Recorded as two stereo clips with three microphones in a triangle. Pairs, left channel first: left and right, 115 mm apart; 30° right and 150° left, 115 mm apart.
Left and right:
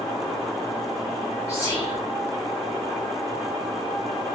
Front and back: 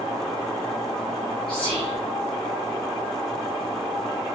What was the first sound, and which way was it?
Whispering, 70° right.